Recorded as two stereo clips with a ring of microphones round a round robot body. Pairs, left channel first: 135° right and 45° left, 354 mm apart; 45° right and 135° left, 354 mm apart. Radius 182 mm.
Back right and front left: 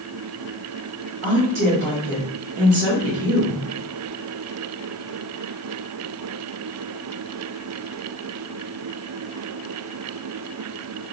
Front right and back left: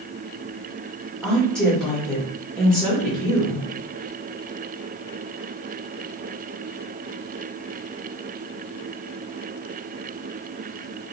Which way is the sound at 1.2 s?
40° left.